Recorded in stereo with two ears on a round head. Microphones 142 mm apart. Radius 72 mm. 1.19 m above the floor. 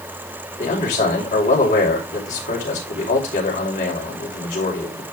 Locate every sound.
0.6 s a man speaking: 50° left (ahead or behind), 5.5 m